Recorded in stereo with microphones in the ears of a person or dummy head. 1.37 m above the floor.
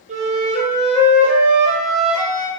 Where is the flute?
45° right (ahead or behind), 0.8 m.